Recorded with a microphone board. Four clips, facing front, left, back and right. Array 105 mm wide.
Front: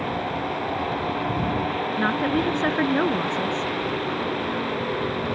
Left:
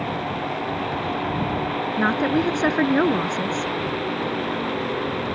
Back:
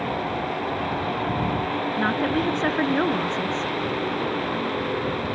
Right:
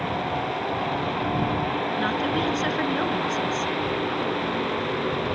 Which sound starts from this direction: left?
A woman speaking, at 2.0 s.